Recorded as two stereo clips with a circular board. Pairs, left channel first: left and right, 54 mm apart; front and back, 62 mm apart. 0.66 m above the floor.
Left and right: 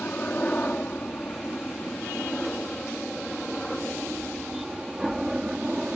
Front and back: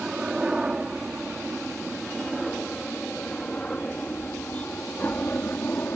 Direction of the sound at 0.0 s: 120° left.